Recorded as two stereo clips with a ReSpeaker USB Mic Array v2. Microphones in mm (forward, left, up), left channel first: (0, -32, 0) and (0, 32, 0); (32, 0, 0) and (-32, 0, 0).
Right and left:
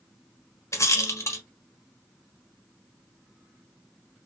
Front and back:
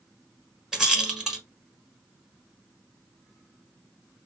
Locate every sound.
0.7 s a rattle: 100° right, 1.1 m